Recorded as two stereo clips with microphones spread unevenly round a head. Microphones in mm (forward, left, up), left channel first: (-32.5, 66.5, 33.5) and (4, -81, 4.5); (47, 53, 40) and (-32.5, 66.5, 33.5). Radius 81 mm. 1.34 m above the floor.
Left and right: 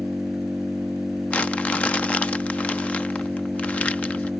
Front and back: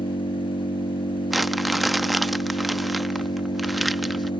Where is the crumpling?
70° left.